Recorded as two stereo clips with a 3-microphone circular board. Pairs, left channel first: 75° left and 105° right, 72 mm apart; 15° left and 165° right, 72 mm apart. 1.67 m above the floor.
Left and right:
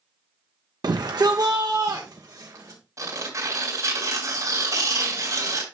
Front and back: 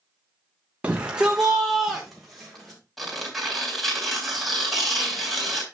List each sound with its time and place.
0.8 s a shout: 95° right, 0.5 m; by 2.8 s 70° right, 1.4 m
3.0 s tearing paper: 75° right, 3 m